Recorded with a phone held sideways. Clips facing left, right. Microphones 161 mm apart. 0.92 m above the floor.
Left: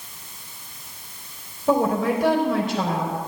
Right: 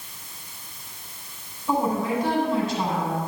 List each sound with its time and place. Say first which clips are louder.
1.7 s a woman speaking: left 4 dB; 85° left, 3.5 m